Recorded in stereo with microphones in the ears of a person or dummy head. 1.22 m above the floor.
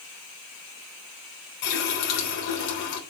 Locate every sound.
1.6 s a running tap: 75° left (ahead or behind), 4 m